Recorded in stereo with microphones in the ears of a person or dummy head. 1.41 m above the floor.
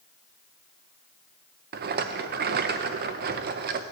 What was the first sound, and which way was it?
A rattle, 45° right (ahead or behind).